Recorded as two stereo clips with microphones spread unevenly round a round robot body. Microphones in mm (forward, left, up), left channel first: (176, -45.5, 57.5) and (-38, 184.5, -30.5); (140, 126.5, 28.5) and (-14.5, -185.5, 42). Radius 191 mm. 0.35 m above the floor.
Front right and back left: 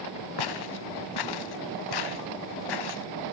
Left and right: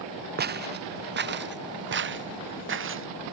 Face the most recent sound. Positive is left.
turn(degrees=-60)